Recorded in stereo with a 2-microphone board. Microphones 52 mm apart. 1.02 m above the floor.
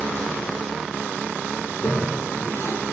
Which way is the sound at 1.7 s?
70° left (ahead or behind).